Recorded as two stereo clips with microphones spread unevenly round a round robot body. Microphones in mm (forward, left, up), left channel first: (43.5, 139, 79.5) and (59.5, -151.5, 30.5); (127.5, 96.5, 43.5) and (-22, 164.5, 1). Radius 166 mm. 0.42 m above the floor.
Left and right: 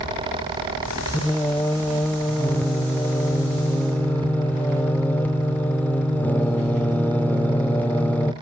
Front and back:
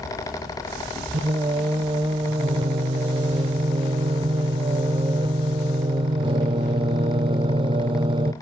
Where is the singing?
175° right, 0.6 m.